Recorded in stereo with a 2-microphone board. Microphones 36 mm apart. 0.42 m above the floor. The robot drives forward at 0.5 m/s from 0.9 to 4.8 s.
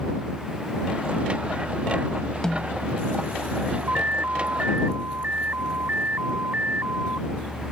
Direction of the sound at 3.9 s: 60° right (ahead or behind).